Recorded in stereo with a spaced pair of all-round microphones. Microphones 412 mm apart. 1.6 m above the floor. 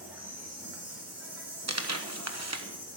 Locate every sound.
0.0 s an insect: 5° right (ahead or behind), 4.5 m
1.7 s tearing paper: 40° right (ahead or behind), 1.1 m